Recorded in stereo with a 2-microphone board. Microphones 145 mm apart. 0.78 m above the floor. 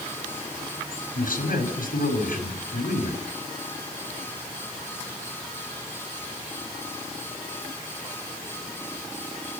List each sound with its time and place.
1.1 s a man speaking: 65° left (ahead or behind), 6 m